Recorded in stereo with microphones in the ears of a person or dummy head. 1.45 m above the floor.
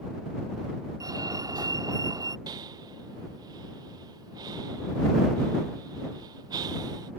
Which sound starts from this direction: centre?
A fire alarm, at 1.0 s.